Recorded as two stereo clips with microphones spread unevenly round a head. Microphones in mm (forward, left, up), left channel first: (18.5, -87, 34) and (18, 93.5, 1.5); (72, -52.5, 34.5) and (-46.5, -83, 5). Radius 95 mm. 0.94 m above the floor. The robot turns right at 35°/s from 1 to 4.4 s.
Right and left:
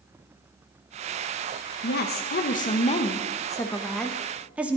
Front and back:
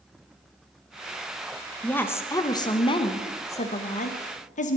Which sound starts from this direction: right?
A woman speaking, at 1.8 s.